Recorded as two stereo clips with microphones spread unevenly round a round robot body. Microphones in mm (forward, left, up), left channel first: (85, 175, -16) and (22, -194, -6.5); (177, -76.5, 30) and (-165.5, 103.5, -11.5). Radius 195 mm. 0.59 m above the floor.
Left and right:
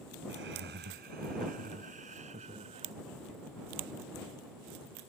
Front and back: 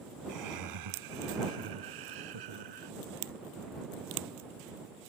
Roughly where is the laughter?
Behind.